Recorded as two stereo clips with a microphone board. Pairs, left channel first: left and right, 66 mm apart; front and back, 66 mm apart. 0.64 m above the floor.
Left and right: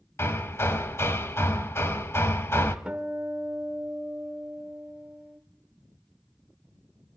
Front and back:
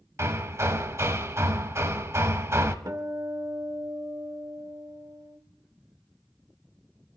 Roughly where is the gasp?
No gasp in this recording.